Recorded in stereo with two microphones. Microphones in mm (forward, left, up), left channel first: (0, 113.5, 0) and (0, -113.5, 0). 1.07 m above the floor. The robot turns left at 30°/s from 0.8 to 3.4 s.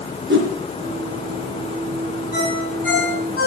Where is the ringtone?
140° left, 5.5 m; by 3.5 s 105° left, 5.5 m.